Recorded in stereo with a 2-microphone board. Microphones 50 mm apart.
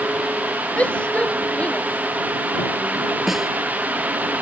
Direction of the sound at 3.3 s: 5° right (ahead or behind).